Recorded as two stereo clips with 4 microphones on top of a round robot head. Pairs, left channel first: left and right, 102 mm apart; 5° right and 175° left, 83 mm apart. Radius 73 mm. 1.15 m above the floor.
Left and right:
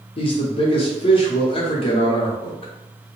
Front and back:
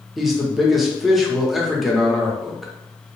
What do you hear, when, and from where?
0.2 s a man speaking: 85° left, 0.8 m